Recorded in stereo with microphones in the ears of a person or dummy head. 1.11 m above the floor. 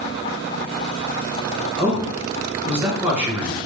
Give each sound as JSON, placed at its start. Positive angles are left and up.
{"t": 1.8, "sound": "a man speaking", "side_deg": -5, "distance_m": 1.1}